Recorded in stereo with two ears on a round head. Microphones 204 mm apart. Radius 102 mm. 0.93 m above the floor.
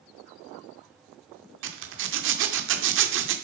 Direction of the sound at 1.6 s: 55° right (ahead or behind).